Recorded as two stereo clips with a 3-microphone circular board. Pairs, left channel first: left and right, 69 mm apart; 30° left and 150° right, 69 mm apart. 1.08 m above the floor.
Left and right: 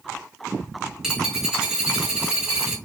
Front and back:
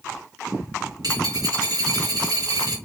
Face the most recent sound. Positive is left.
turn(degrees=-175)